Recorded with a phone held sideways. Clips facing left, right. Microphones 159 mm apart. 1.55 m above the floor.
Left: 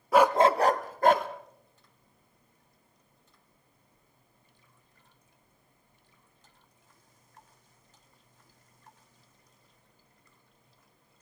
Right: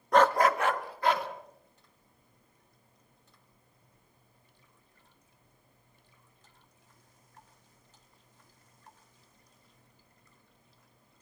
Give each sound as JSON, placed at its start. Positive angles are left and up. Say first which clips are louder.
{"t": 0.1, "sound": "a dog barking", "louder": "left 2 dB", "side_deg": 5, "distance_m": 0.9}